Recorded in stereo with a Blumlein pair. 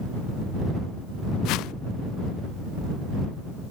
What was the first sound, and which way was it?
A whoosh, 40° left.